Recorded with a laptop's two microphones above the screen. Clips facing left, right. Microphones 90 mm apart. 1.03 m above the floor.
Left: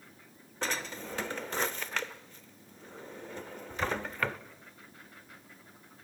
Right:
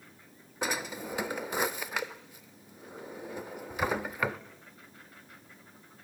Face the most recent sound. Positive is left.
turn(degrees=-10)  # may be behind; listen again after turning